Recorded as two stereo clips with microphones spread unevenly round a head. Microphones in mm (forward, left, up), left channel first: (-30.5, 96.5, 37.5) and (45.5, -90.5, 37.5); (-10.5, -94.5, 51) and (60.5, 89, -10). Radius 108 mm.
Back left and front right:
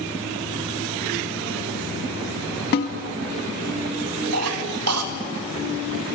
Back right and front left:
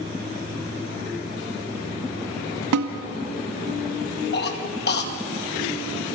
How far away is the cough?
About 2.5 m.